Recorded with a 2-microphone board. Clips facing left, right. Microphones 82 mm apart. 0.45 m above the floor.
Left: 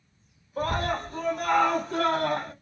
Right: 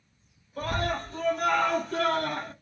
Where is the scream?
30° left (ahead or behind), 1.2 m.